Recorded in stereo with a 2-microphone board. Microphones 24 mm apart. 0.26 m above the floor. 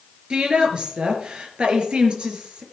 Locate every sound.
0.3 s a woman speaking: 40° right (ahead or behind), 3.5 m